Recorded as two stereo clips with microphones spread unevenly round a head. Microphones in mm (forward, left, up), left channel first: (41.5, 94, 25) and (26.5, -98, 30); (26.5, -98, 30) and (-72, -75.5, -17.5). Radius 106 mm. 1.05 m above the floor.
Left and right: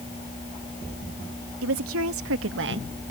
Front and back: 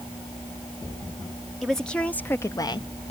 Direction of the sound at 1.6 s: 105° right.